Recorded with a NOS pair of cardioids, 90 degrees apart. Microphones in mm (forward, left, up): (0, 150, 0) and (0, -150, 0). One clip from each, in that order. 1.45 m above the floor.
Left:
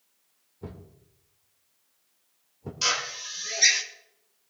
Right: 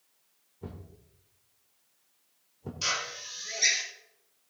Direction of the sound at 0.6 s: 15° left.